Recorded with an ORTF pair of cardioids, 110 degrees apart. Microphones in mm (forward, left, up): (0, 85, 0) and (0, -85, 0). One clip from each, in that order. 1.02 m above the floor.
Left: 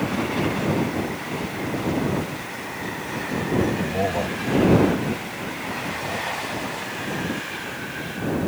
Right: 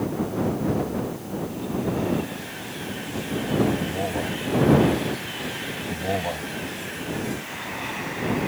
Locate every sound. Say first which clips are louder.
3.8 s a man speaking: left 3 dB; 25° left
5.9 s a man speaking: right 2 dB; 55° right